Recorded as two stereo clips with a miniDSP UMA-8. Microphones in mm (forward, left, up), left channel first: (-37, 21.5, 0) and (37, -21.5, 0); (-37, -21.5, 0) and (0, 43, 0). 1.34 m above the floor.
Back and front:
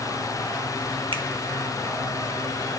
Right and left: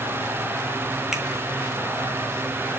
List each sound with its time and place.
1.1 s a finger snap: 25° right, 1.5 m